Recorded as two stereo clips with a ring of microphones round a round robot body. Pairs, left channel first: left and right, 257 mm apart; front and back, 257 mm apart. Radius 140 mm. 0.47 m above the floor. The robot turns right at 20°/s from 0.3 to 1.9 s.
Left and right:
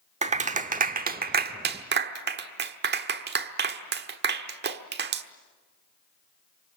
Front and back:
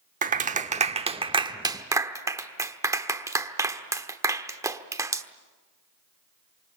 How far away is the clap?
About 1.2 m.